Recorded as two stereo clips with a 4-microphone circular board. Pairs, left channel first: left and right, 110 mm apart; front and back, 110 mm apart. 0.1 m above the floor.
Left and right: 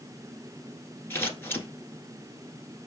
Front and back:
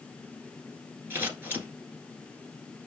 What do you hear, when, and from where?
1.1 s scissors: 135° left, 1.4 m